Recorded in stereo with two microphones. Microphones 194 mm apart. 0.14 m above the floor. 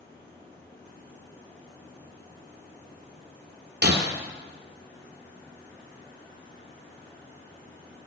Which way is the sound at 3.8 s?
60° right (ahead or behind).